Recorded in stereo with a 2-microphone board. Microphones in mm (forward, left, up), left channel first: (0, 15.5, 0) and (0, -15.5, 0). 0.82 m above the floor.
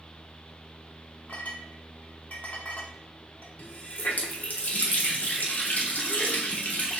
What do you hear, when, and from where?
1.3 s a clink: 45° left (ahead or behind), 1.3 m
3.6 s a running tap: 55° left (ahead or behind), 1.0 m